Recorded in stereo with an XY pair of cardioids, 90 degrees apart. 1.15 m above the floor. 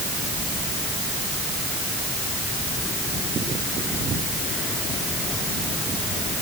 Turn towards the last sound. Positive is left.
No sound to turn to.